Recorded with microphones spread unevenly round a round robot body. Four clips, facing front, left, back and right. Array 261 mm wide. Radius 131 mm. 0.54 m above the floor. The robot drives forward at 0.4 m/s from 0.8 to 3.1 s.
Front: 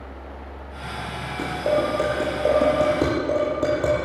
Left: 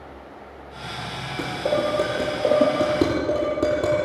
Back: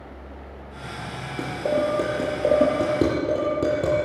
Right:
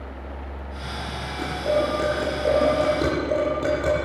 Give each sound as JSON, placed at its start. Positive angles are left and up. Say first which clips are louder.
{"t": 1.4, "sound": "dishes clattering", "louder": "even, front 1 dB", "azimuth_deg": 150, "distance_m": 9.0}